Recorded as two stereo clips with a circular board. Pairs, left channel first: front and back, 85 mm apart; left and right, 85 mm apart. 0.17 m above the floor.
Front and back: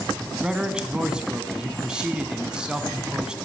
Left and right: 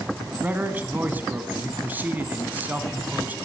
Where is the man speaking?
115° right, 1.0 m.